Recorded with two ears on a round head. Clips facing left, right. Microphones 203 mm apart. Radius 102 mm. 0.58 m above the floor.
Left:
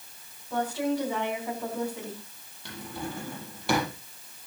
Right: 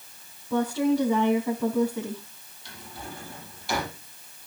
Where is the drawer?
50° left (ahead or behind), 6 m.